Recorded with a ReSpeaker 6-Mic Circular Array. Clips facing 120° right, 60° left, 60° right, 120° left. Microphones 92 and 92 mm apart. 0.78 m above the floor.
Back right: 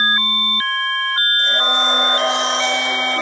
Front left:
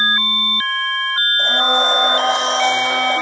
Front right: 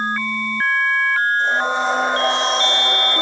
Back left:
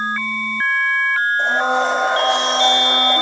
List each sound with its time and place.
1.4 s a blender: 105° left, 4.5 m